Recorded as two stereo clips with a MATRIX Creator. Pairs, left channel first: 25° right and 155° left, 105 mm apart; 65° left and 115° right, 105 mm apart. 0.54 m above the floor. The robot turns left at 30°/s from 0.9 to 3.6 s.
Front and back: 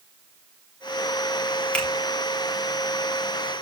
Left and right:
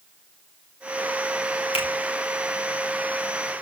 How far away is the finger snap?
About 2.5 m.